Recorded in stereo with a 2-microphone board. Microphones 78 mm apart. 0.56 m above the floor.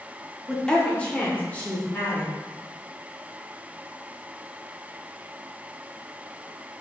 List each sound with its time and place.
0.5 s a woman speaking: 5° left (ahead or behind), 0.7 m; by 2.3 s 25° left (ahead or behind), 2 m